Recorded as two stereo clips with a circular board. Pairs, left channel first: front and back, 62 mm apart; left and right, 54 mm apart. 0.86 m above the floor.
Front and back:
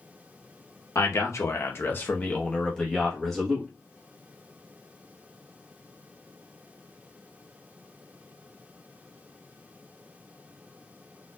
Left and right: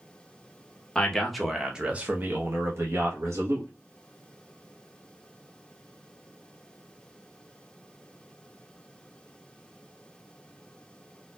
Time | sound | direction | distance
0.9 | a man speaking | 15° left | 0.9 m